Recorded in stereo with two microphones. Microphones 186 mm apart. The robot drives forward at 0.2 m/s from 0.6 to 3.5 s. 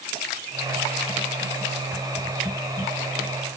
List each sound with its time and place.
Only background noise.